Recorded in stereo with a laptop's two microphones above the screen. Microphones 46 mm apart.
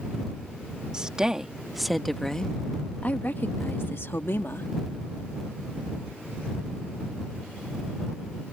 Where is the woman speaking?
20° right (ahead or behind); by 4.7 s 75° left (ahead or behind).